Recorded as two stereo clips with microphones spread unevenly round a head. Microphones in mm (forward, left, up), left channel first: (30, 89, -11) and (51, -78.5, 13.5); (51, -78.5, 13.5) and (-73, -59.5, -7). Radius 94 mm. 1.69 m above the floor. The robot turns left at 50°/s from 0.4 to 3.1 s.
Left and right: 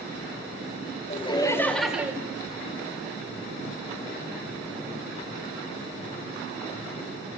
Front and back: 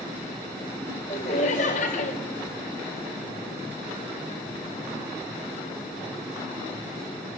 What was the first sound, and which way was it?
Laughter, 40° left.